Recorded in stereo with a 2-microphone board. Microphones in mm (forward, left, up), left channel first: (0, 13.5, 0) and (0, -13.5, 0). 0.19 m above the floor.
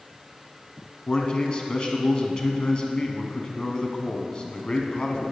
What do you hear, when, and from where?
1.1 s a man speaking: 35° left (ahead or behind), 1.2 m